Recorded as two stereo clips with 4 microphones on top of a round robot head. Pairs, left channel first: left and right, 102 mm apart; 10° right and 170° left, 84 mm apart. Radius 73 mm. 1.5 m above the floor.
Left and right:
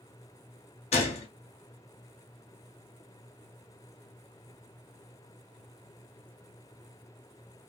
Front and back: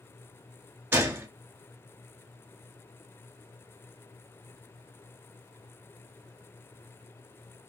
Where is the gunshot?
105° left, 0.8 m.